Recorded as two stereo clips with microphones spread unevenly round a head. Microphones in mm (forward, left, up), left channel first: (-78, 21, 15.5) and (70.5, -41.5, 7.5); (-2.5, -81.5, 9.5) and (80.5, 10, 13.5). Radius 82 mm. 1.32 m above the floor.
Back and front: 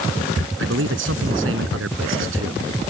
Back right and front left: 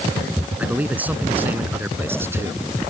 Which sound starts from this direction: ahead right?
A man speaking, at 0.6 s.